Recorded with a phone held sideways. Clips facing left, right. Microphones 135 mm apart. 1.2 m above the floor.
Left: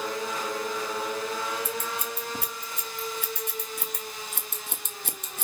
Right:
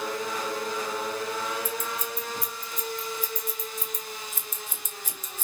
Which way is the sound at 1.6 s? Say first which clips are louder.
Even; 70° left (ahead or behind).